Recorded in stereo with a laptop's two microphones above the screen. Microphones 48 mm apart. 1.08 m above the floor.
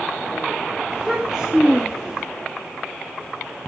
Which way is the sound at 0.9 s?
10° right (ahead or behind).